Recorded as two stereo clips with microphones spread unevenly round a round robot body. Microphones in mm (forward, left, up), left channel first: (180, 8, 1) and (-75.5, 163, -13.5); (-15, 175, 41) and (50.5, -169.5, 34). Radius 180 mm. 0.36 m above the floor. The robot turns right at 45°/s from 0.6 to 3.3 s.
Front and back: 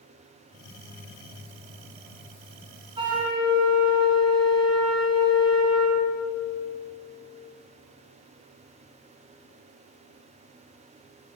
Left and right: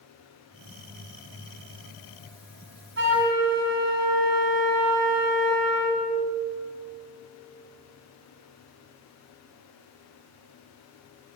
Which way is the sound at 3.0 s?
135° right.